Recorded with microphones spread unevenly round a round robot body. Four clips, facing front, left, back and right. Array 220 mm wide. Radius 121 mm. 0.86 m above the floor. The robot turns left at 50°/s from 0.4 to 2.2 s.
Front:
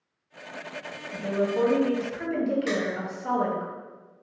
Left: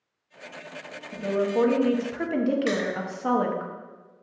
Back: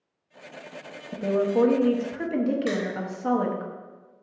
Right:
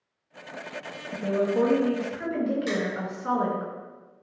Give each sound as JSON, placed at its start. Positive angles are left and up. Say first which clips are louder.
{"t": 1.1, "sound": "a woman speaking", "louder": "even, back 3 dB", "azimuth_deg": -170, "distance_m": 0.7}
{"t": 2.7, "sound": "crushing", "louder": "left 2 dB, even", "azimuth_deg": 155, "distance_m": 1.1}